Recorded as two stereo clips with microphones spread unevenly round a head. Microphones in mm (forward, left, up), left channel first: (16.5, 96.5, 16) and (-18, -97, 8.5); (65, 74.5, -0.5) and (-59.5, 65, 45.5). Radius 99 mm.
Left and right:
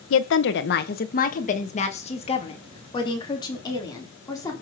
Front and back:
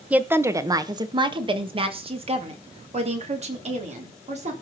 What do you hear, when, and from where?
0.1 s a woman speaking: 105° left, 1.1 m; by 4.5 s 155° left, 4 m